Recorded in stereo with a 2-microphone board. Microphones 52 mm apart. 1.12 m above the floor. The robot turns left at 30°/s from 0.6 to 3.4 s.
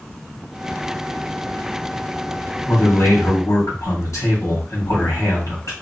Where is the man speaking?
55° left (ahead or behind), 1.8 m; by 5.7 s 80° left, 1.8 m.